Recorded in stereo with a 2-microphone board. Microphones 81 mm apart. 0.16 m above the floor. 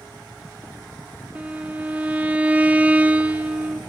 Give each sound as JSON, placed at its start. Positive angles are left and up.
{"t": 1.4, "sound": "a violin", "side_deg": -15, "distance_m": 0.8}